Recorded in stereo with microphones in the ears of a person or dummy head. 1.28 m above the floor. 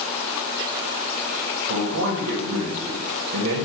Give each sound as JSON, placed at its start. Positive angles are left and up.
{"t": 1.7, "sound": "a man speaking", "side_deg": -75, "distance_m": 0.7}